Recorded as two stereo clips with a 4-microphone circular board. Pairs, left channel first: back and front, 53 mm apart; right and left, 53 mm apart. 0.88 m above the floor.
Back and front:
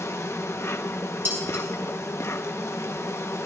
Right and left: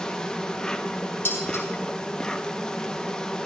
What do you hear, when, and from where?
0.0 s an insect: 165° right, 0.8 m
1.2 s dishes clattering: 50° right, 5 m